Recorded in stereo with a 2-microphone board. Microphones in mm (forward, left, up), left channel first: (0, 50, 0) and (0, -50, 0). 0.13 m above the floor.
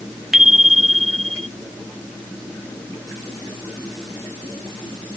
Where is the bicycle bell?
5° right (ahead or behind); by 1.5 s 5° left (ahead or behind).